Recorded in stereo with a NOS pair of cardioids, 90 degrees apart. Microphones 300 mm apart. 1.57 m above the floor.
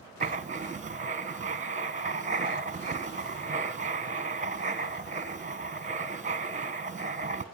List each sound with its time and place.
0.2 s writing: 25° right, 1.3 m